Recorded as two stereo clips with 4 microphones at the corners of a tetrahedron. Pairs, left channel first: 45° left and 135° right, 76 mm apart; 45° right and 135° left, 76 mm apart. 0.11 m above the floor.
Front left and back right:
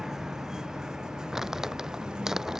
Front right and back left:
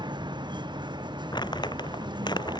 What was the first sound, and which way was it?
A vehicle, 140° left.